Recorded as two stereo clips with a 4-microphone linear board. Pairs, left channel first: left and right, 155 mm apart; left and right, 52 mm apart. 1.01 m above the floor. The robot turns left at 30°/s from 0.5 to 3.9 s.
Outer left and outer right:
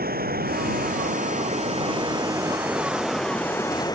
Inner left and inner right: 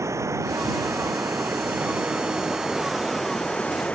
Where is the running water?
100° right; by 4.0 s 155° left.